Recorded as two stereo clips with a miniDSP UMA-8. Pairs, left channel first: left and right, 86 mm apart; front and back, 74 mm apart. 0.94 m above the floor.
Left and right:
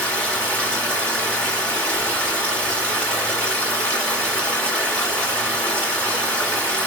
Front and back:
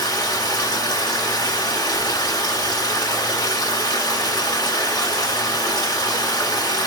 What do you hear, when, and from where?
0.0 s running water: 15° left, 2.5 m